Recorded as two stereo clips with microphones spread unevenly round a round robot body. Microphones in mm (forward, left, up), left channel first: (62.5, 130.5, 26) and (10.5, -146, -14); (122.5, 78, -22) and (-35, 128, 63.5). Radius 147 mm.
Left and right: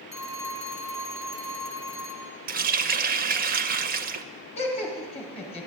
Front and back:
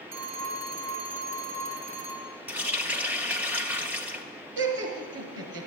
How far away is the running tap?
About 0.6 m.